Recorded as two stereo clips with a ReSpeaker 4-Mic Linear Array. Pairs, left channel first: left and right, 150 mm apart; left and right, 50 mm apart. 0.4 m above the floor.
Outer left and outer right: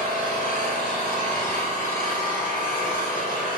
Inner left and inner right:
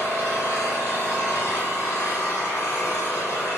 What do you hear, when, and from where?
0.0 s an engine running: 65° left (ahead or behind), 1.5 m